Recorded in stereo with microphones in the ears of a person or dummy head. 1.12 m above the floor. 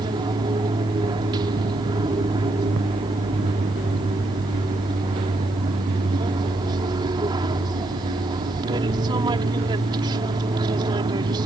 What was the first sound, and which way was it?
An aircraft, 25° right (ahead or behind).